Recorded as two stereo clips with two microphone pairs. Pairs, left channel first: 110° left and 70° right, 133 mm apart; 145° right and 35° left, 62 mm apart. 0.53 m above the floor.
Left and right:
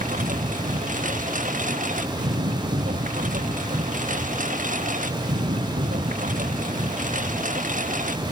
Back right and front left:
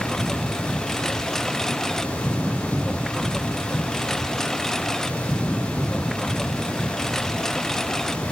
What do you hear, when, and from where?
0.0 s a lawn mower: 60° right